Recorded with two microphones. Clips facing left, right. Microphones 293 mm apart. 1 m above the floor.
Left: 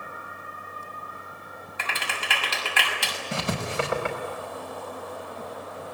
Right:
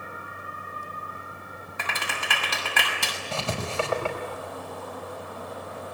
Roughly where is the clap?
Right.